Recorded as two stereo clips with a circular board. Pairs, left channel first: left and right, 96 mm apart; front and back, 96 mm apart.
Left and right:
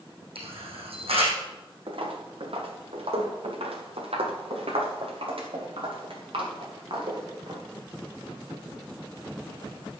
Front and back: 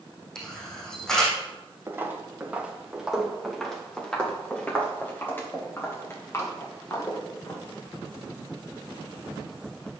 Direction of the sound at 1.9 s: 115° right.